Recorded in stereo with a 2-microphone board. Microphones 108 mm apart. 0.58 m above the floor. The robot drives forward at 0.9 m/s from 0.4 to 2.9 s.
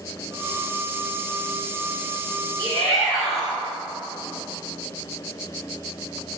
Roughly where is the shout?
Left.